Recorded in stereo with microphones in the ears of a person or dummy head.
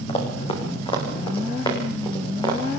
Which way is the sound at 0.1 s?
35° left (ahead or behind).